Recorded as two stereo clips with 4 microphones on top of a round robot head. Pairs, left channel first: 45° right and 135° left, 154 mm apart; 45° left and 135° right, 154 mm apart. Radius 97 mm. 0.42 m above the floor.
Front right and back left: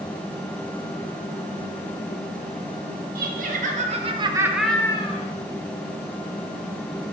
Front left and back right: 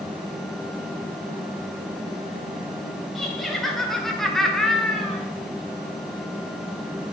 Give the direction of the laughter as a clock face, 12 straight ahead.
7 o'clock.